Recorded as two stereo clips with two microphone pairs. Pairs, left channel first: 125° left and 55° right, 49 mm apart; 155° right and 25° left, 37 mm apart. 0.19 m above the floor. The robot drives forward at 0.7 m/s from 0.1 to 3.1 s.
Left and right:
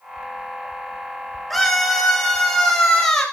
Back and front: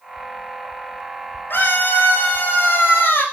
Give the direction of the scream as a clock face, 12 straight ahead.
5 o'clock.